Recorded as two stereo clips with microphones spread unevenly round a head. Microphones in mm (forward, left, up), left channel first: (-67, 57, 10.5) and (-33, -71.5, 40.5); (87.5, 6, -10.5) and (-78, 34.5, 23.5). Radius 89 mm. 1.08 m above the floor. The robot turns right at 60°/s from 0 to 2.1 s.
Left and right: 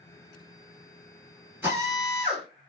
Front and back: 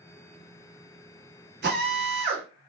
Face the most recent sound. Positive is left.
turn(degrees=-125)